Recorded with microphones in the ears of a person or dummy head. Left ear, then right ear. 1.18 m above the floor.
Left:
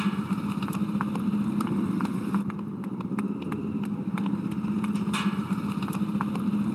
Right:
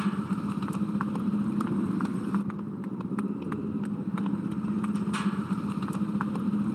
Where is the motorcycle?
10° left (ahead or behind).